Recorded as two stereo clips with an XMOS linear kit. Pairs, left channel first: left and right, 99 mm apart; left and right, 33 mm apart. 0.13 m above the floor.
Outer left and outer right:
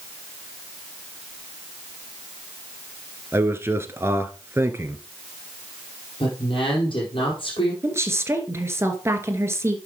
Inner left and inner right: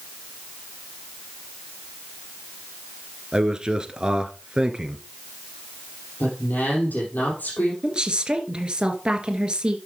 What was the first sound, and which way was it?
A man speaking, 25° right (ahead or behind).